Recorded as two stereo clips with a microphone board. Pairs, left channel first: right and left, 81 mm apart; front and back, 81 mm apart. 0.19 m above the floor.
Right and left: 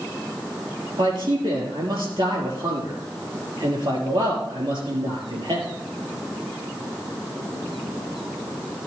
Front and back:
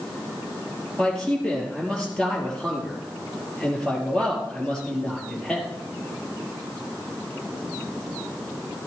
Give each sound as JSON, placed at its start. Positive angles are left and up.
{"t": 1.0, "sound": "a man speaking", "azimuth_deg": 80, "distance_m": 4.5}